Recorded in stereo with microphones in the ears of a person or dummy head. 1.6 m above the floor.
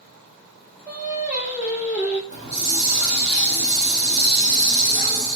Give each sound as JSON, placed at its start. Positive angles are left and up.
{"t": 0.9, "sound": "singing", "side_deg": -5, "distance_m": 1.4}
{"t": 2.3, "sound": "a hiss", "side_deg": -50, "distance_m": 2.0}